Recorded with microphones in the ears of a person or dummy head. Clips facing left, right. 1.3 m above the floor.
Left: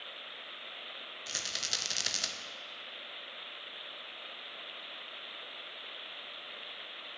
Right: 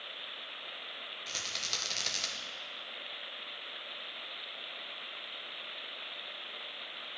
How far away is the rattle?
About 1.1 m.